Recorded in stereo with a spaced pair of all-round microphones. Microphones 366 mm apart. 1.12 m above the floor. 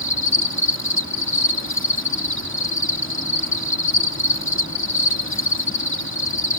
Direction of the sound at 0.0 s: 35° left (ahead or behind).